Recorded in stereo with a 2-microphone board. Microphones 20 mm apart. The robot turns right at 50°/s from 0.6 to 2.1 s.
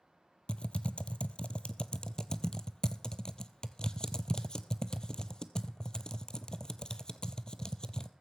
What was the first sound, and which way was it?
Typing on a keyboard, 55° left (ahead or behind).